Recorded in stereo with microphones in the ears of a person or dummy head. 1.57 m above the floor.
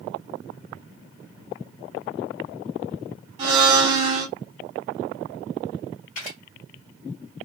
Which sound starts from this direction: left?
A camera shutter, at 6.2 s.